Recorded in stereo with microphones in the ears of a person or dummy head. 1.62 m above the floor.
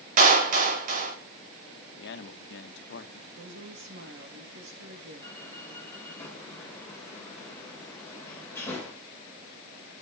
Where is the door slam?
10° left (ahead or behind), 4.5 m.